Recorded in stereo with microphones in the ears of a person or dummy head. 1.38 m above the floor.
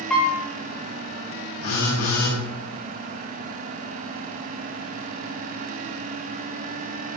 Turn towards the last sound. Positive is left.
turn(degrees=75)  # may be behind; listen again after turning